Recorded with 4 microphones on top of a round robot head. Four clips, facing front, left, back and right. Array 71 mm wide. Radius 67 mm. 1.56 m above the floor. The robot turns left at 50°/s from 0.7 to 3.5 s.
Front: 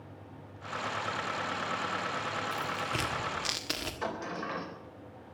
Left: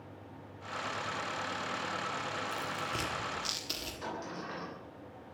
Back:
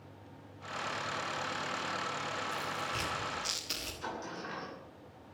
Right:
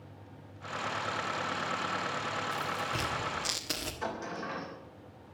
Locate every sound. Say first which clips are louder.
2.5 s tearing paper: right 3 dB, front 3 dB; 30° left, 1.5 m; by 3.9 s 20° right, 1.5 m
4.0 s a sliding door: right 3 dB, front 5 dB; 15° right, 4 m